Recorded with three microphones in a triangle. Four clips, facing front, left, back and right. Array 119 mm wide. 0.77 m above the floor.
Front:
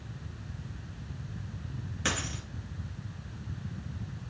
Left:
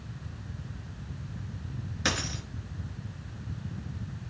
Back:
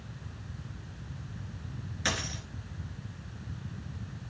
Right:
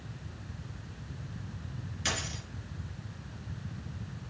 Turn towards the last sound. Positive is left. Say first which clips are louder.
# left 5 dB, even
turn(degrees=50)